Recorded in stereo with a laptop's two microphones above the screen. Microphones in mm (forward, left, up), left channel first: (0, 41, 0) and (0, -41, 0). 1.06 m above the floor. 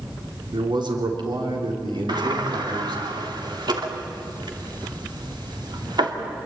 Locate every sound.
0.5 s a man speaking: 65° right (ahead or behind), 3.5 m
2.1 s a sliding door: 65° right (ahead or behind), 2.5 m